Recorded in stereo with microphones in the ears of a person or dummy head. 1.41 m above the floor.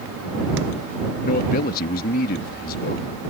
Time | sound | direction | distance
1.2 | a man speaking | 50° left (ahead or behind) | ?